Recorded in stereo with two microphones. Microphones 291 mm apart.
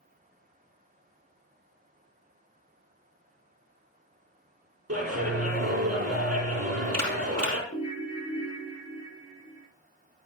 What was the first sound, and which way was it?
A clap, 55° right (ahead or behind).